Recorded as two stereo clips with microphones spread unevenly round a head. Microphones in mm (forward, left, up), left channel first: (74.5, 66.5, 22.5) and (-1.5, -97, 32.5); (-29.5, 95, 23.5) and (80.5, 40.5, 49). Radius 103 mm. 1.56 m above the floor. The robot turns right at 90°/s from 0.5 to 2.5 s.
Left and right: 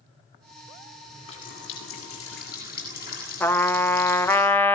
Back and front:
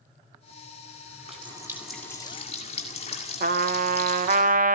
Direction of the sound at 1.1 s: 15° right.